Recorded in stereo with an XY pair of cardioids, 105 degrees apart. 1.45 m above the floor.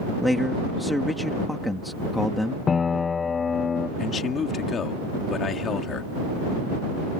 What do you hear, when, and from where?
0.2 s a man speaking: 10° left
2.7 s a piano: 40° left
4.0 s a man speaking: 50° left